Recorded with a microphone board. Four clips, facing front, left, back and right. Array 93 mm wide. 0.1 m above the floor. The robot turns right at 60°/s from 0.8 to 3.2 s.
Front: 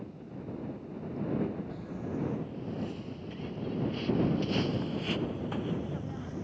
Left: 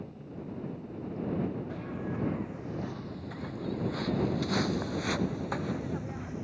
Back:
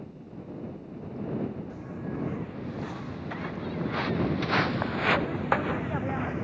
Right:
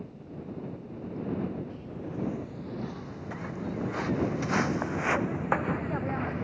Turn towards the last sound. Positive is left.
turn(degrees=-140)